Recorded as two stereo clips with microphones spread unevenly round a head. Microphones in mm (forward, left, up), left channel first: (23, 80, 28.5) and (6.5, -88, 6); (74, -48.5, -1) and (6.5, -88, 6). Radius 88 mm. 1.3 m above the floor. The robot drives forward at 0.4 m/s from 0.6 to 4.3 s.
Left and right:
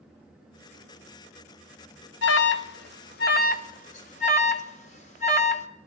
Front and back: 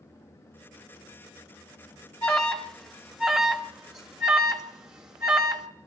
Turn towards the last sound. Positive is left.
turn(degrees=140)